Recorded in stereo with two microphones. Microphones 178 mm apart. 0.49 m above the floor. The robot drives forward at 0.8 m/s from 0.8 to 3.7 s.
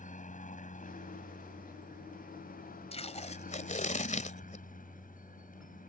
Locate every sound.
0.0 s a helicopter: 45° left (ahead or behind); by 5.9 s 50° left (ahead or behind)
2.9 s tape being pulled: 35° left (ahead or behind); by 4.7 s 45° left (ahead or behind)